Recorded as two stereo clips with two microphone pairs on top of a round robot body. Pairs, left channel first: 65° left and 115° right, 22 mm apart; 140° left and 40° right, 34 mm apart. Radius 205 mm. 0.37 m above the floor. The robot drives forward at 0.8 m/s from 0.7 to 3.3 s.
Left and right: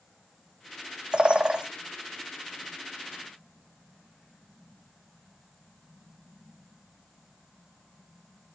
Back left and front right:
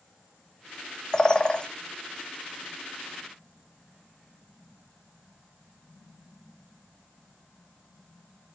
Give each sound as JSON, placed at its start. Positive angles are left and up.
{"t": 1.1, "sound": "a bird", "azimuth_deg": -150, "distance_m": 1.3}